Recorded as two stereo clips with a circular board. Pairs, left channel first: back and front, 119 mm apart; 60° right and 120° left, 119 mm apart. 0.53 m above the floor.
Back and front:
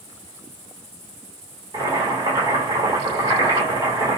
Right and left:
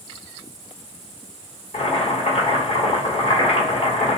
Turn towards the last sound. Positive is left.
turn(degrees=-45)